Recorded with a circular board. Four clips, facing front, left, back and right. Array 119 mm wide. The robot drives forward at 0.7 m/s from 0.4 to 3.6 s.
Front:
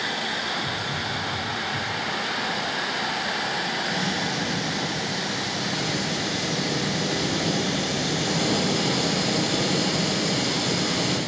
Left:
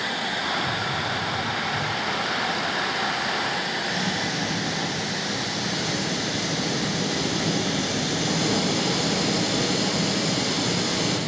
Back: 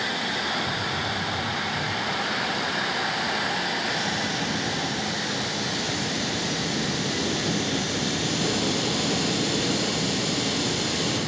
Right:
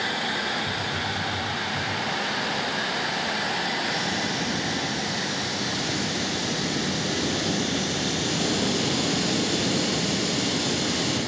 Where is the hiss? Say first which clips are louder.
Left 2 dB, back 1 dB; 25° left, 9 m; by 11.2 s 35° left, 7 m.